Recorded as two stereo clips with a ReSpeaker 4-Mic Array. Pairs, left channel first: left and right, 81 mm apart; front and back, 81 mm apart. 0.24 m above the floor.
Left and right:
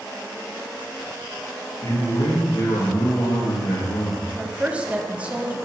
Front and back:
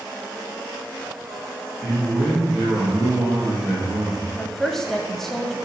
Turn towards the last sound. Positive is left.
turn(degrees=-75)